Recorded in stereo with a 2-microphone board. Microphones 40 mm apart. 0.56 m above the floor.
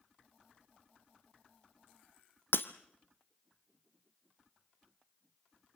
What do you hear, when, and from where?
2.5 s breaking glass: 70° left (ahead or behind), 1.5 m